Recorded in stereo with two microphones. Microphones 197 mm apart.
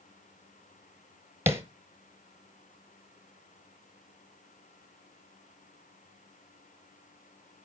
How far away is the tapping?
About 1.4 m.